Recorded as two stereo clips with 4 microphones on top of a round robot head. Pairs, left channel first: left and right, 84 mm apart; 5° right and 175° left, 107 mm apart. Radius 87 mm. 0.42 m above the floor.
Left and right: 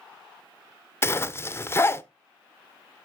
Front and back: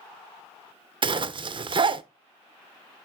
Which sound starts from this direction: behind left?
A zipper, at 1.0 s.